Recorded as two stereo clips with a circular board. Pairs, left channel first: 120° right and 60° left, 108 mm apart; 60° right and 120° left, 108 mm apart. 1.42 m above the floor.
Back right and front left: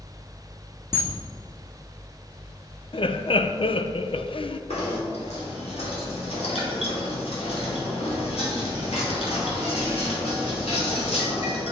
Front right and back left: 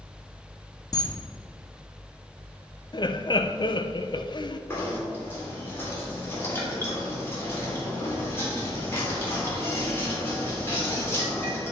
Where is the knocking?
125° right, 3 m.